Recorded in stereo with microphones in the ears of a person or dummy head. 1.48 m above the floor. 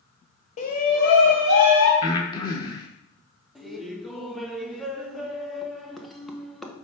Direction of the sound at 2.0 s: 20° left (ahead or behind).